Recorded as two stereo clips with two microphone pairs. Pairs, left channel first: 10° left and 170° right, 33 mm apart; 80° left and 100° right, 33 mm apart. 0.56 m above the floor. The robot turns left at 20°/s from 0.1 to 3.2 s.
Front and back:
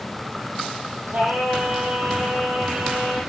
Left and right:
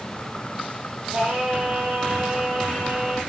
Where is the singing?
150° right, 6 m; by 3.2 s 165° left, 6 m.